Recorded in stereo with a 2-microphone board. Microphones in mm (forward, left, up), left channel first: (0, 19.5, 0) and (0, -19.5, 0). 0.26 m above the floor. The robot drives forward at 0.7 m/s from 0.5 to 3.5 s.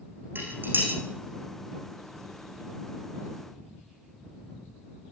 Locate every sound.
0.3 s dishes clattering: 60° right (ahead or behind), 8.5 m; by 0.9 s 55° right (ahead or behind), 9 m